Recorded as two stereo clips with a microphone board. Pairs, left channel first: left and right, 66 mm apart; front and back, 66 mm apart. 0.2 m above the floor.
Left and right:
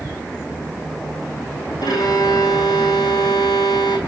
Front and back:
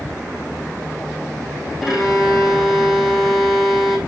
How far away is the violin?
About 4.5 m.